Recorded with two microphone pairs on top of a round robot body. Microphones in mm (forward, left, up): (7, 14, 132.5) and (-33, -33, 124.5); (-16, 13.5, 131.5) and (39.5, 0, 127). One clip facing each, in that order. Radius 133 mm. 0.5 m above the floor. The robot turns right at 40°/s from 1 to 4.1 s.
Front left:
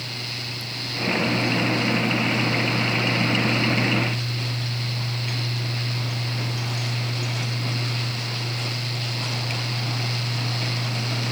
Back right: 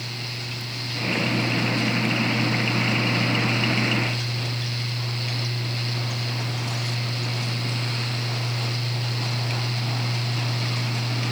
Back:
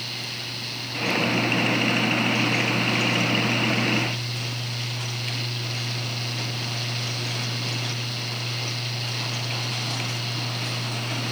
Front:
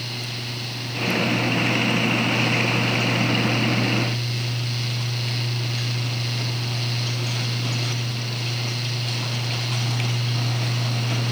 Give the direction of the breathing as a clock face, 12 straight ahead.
No breathing in this recording.